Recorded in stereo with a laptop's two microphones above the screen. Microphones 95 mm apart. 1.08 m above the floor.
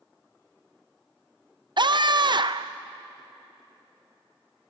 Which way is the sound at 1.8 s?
55° right (ahead or behind).